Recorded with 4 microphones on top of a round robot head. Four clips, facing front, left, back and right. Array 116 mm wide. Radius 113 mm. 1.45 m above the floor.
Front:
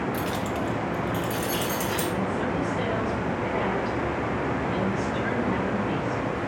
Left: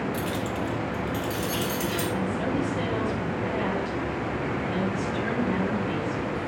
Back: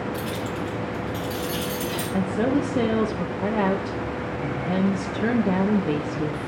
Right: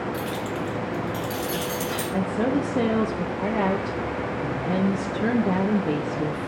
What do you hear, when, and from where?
0.1 s keys jangling: 15° left, 1.5 m; by 2.0 s 30° right, 3.5 m
2.1 s a woman speaking: 140° right, 0.9 m